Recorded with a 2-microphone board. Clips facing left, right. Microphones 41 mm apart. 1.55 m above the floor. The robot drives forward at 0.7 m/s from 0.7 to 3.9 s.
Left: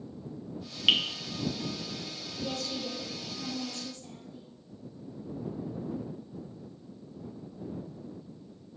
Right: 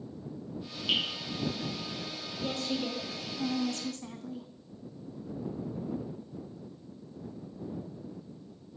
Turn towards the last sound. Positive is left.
turn(degrees=-70)  # may be behind; listen again after turning